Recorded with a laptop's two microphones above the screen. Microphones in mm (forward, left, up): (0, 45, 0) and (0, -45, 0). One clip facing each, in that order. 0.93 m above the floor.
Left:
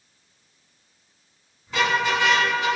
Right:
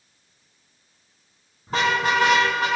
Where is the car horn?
45° right (ahead or behind), 4.5 m; by 2.7 s 50° right (ahead or behind), 5 m.